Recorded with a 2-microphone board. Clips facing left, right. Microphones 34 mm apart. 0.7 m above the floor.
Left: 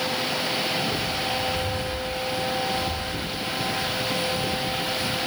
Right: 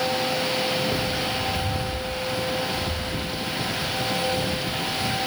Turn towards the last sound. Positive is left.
turn(degrees=-70)  # may be behind; listen again after turning